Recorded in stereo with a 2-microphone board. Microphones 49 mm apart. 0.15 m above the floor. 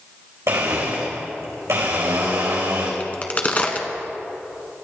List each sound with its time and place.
0.5 s a blender: 75° right (ahead or behind), 4.5 m
3.0 s a crack: 30° left (ahead or behind), 1.5 m